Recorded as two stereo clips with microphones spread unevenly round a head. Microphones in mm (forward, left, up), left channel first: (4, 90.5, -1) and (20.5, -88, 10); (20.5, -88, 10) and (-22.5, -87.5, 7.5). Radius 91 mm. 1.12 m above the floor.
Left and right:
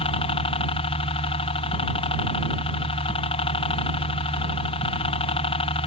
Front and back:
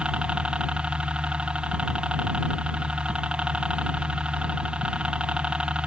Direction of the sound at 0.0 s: 125° left.